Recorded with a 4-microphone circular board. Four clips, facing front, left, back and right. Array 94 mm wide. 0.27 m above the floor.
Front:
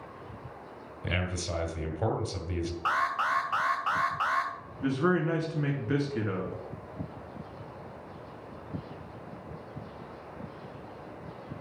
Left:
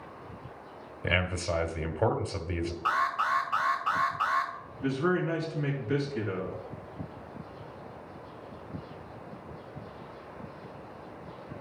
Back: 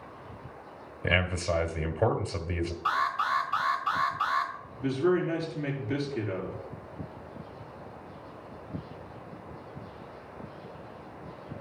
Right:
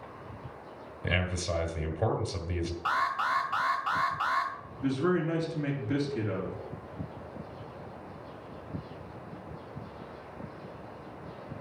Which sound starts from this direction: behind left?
A man speaking, at 1.0 s.